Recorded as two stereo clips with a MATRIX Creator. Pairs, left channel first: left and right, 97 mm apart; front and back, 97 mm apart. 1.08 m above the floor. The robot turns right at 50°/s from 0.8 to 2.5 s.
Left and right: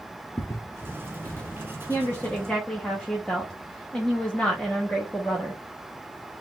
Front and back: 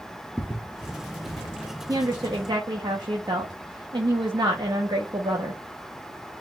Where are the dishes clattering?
No dishes clattering in this recording.